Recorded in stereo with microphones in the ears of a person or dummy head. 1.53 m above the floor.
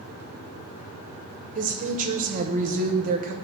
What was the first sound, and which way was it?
A woman speaking, 45° right (ahead or behind).